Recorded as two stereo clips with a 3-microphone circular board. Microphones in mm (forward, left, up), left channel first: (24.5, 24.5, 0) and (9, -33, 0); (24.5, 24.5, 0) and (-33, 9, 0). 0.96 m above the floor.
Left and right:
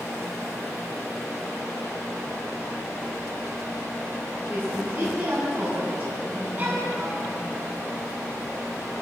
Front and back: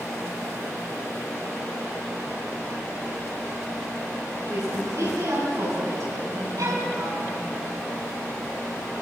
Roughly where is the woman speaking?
Behind.